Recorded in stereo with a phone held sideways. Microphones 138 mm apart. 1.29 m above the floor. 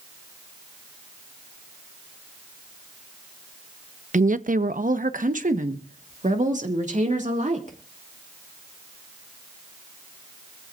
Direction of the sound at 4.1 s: 65° right (ahead or behind).